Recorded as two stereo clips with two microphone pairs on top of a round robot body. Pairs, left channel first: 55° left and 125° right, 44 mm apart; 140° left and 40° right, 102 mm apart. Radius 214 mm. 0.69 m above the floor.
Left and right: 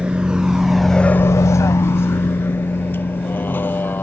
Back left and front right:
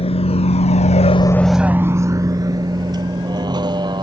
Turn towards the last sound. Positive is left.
turn(degrees=10)